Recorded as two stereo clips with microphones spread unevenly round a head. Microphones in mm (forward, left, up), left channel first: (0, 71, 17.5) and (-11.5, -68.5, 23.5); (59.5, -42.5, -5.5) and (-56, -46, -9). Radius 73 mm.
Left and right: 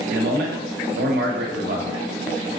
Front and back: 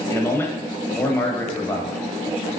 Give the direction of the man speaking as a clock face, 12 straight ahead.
2 o'clock.